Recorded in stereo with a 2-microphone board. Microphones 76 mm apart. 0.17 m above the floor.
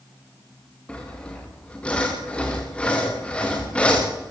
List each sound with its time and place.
0.9 s sawing: 15° left (ahead or behind), 4.5 m